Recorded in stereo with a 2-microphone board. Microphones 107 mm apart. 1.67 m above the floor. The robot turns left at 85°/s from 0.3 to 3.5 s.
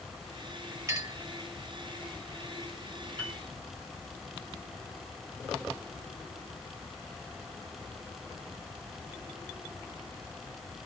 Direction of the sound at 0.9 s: 30° right (ahead or behind).